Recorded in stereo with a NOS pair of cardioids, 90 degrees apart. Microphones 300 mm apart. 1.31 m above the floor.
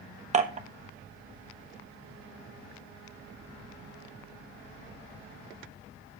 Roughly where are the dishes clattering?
Ahead right.